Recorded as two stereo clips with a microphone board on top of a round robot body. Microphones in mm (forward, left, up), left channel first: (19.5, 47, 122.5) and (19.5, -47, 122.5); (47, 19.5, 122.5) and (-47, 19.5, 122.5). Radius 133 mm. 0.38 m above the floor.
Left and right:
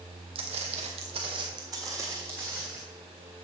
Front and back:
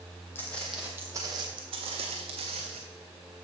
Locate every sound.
0.3 s footsteps: 70° right, 0.8 m; by 2.8 s 165° right, 1.5 m